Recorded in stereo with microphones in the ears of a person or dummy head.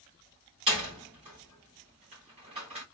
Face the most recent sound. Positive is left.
turn(degrees=-35)  # may be behind; listen again after turning